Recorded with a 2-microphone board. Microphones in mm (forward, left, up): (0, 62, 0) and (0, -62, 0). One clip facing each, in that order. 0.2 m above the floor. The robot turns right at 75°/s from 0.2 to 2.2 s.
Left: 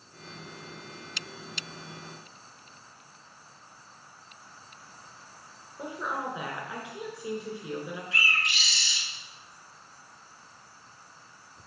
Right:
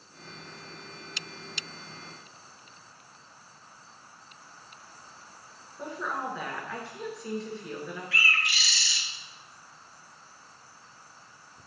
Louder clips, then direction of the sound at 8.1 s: Right 2 dB; 20° left (ahead or behind).